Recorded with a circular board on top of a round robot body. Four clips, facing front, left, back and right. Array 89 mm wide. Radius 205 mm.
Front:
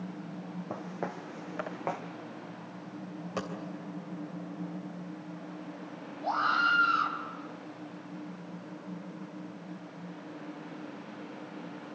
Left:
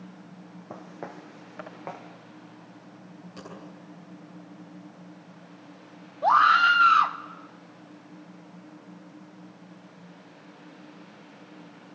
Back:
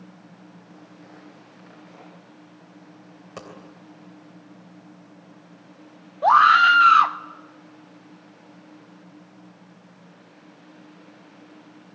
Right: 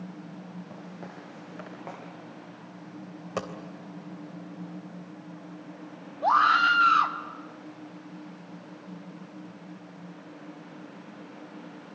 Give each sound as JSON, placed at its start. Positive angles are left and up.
{"t": 0.7, "sound": "footsteps", "azimuth_deg": 25, "distance_m": 2.5}
{"t": 3.4, "sound": "a dropped coin", "azimuth_deg": -80, "distance_m": 3.0}
{"t": 6.2, "sound": "a scream", "azimuth_deg": 170, "distance_m": 1.4}